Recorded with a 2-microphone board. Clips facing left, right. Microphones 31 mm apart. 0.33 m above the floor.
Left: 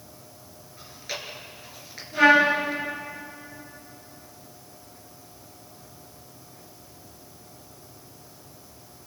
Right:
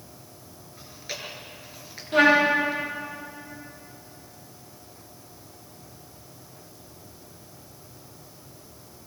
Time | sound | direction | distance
0.8 | chewing | centre (ahead or behind) | 5 m
2.1 | a trumpet | 80° right | 9 m